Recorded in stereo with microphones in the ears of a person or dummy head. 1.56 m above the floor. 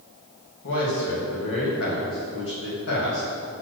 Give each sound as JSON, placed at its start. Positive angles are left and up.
{"t": 0.6, "sound": "a man speaking", "side_deg": 65, "distance_m": 2.5}